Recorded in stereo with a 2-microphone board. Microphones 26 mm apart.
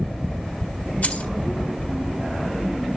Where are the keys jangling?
65° left (ahead or behind), 1.7 m.